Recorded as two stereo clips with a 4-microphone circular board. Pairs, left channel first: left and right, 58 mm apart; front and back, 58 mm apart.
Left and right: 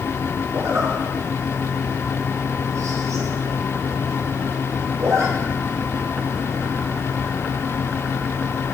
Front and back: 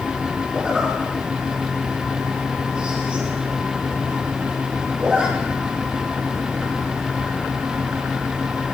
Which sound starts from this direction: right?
A zipper, at 0.5 s.